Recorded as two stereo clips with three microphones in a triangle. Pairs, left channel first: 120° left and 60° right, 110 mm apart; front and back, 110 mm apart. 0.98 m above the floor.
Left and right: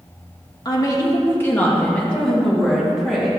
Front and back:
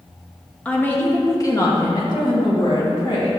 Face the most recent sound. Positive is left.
turn(degrees=30)